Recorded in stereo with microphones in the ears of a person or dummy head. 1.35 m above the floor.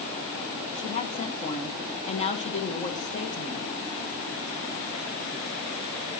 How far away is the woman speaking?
About 1.1 m.